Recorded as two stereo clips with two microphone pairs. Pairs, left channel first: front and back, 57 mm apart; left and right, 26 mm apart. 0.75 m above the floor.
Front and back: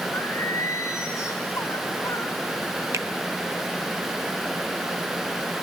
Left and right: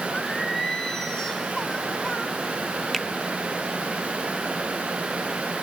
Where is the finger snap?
Straight behind, 0.6 m.